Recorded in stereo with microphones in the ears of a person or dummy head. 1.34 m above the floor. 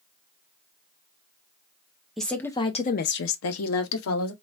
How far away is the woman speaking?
About 0.7 m.